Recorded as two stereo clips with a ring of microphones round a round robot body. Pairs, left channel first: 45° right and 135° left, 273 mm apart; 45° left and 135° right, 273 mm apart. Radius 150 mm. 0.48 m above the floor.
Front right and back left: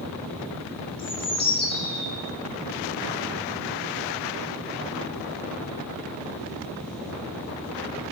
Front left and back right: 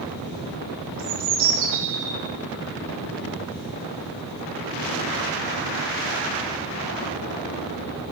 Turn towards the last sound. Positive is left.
turn(degrees=-115)